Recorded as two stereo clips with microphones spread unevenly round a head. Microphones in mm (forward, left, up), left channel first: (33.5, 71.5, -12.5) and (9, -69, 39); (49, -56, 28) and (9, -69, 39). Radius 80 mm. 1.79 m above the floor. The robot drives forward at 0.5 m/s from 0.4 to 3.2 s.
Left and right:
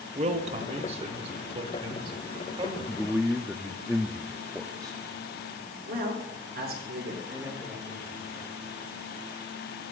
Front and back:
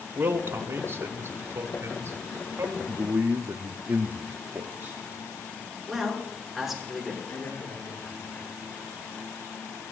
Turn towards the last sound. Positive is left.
turn(degrees=-20)